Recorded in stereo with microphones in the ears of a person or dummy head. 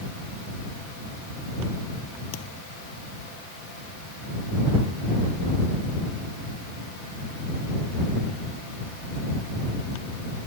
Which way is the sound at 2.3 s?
75° left (ahead or behind).